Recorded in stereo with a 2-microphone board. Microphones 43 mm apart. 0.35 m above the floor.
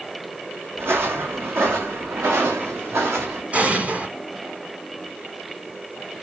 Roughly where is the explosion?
Right.